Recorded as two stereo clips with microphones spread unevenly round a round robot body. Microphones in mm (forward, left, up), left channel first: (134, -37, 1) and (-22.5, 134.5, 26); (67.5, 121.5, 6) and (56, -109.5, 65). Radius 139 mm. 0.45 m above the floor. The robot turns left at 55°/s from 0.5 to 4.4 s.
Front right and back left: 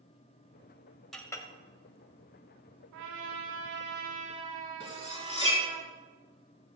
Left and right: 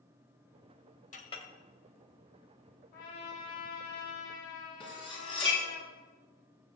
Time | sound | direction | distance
1.1 | a clink | 40° left | 1.7 m
2.9 | a trumpet | 145° left | 4 m
4.8 | cutlery clinking | 15° left | 4 m